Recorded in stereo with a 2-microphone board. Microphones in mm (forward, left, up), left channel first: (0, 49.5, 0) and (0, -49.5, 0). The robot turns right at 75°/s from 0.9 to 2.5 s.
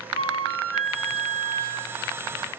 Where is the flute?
95° left, 3 m; by 2.0 s straight behind, 3 m.